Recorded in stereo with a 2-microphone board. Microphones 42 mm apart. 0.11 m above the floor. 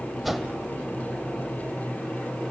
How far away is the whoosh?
About 1.3 m.